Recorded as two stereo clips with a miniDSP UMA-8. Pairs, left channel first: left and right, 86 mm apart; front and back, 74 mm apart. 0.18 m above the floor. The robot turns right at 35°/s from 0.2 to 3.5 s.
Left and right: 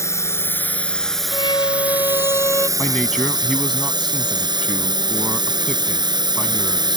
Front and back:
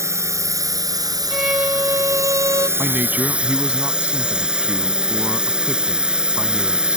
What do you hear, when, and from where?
0.0 s a drone: 140° left; by 7.0 s 105° right
1.3 s a violin: 100° left; by 2.7 s 150° left
2.8 s a man speaking: 140° left; by 7.0 s 165° left